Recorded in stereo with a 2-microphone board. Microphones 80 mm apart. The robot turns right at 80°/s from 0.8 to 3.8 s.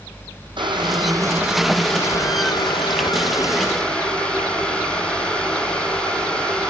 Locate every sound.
0.6 s boiling: 75° right, 2.5 m; by 6.7 s 165° left, 2.5 m